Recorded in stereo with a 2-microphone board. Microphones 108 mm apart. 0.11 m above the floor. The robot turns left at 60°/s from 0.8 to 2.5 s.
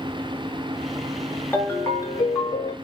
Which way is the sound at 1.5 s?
150° left.